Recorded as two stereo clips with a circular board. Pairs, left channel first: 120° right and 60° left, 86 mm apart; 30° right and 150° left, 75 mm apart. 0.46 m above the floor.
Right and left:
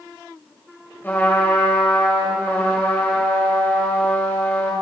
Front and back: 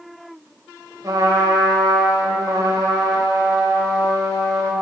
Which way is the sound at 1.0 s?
175° left.